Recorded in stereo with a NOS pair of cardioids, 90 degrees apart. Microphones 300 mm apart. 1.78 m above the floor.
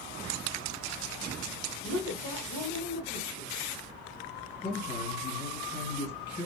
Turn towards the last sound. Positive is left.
turn(degrees=35)